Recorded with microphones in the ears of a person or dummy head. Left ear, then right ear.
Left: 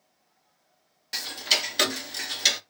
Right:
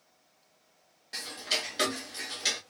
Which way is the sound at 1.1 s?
35° left (ahead or behind).